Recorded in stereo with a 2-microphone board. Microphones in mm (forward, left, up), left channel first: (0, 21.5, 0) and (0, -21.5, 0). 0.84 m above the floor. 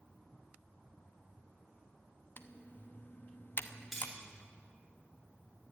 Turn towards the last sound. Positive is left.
turn(degrees=-5)  # may be behind; listen again after turning